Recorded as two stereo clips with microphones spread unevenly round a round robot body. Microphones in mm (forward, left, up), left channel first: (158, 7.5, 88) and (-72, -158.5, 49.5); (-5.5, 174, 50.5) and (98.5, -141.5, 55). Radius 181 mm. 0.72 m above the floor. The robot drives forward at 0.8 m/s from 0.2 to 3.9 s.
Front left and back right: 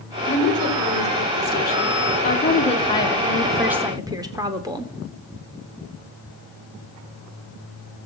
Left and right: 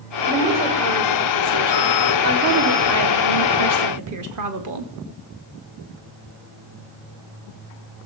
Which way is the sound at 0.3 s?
15° right.